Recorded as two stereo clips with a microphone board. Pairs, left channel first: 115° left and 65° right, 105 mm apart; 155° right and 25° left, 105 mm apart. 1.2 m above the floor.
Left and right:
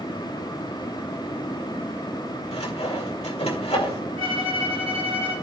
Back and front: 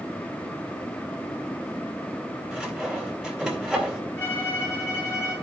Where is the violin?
90° right, 3.5 m.